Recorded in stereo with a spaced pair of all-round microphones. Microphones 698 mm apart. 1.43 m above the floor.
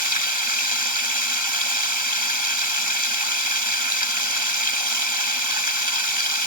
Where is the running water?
25° right (ahead or behind).